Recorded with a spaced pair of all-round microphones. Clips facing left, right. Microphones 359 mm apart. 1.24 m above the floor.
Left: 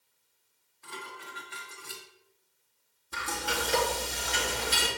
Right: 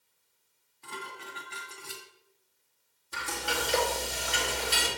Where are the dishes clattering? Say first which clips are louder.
Right 2 dB; 40° right (ahead or behind), 2 m.